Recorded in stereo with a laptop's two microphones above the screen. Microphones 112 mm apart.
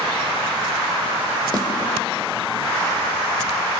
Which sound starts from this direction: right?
A snare drum, at 1.5 s.